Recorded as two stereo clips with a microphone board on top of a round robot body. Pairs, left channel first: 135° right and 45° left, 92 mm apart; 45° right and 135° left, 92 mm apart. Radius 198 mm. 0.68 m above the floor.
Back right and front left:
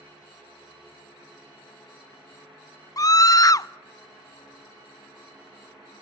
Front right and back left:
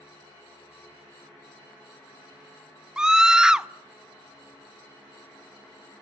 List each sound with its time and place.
3.0 s a scream: 145° right, 0.8 m